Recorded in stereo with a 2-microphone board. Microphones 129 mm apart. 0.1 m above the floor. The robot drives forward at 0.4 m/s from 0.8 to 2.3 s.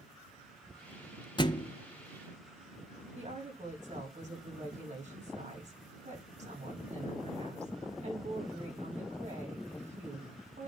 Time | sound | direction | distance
1.4 | a thud | 35° left (ahead or behind) | 0.5 m
3.1 | a woman speaking | 65° right (ahead or behind) | 5.5 m